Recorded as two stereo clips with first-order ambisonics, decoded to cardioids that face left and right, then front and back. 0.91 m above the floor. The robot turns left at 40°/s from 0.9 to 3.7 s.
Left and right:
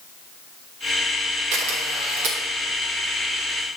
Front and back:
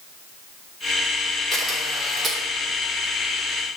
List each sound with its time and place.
1.5 s a camera shutter: 75° right, 1.9 m; by 2.4 s 110° right, 1.9 m